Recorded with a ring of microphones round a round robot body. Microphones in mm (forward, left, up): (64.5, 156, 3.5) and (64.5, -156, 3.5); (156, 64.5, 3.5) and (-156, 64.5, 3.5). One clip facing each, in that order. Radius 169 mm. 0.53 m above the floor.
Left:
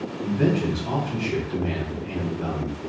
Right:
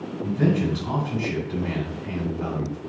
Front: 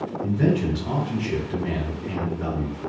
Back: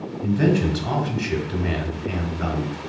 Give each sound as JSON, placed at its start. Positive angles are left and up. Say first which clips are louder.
{"t": 0.2, "sound": "a man speaking", "louder": "even, back 2 dB", "azimuth_deg": -175, "distance_m": 1.2}